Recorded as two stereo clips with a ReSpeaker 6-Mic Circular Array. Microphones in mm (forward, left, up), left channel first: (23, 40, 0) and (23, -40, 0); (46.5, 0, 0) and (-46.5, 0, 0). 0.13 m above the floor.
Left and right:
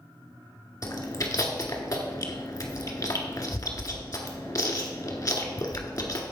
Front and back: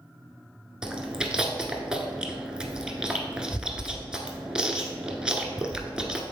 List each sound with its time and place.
0.8 s chewing: 100° left, 1.1 m